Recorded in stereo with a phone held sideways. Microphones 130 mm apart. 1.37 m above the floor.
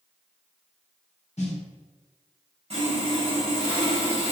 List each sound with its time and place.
1.4 s a snare drum: 55° left (ahead or behind), 1.1 m
2.7 s sawing: 50° right (ahead or behind), 1.1 m